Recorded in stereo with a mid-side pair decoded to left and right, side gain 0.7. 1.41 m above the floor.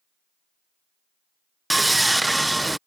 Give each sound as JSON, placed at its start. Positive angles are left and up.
{"t": 1.7, "sound": "sawing", "azimuth_deg": -5}